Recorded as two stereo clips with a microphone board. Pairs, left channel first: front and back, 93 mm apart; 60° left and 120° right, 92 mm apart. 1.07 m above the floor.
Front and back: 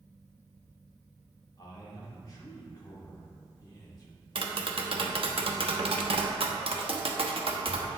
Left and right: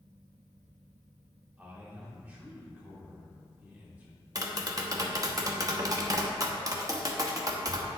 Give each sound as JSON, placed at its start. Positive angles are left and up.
{"t": 1.6, "sound": "a man speaking", "azimuth_deg": -45, "distance_m": 2.5}
{"t": 4.3, "sound": "tapping", "azimuth_deg": -170, "distance_m": 0.9}